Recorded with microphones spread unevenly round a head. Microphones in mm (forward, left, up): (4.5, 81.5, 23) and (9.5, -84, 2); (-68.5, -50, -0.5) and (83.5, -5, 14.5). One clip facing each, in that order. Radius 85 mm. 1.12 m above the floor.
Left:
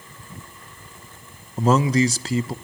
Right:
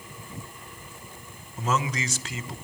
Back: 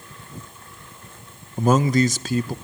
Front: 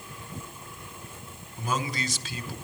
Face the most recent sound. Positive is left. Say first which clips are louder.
# left 10 dB, back 13 dB
turn(degrees=150)